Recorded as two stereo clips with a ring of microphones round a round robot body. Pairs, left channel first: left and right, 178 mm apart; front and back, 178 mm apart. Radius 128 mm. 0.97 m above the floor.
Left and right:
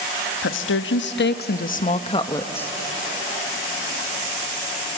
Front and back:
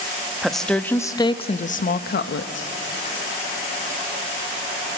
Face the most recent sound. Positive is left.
turn(degrees=10)